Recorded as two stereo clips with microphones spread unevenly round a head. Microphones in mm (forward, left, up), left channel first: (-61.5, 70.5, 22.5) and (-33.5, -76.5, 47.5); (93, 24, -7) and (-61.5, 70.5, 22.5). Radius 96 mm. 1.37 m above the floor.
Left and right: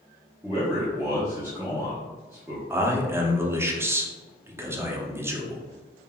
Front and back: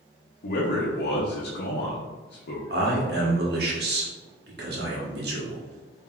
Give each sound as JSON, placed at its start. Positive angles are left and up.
{"t": 0.4, "sound": "a man speaking", "azimuth_deg": 10, "distance_m": 0.8}
{"t": 2.7, "sound": "a man speaking", "azimuth_deg": -155, "distance_m": 0.9}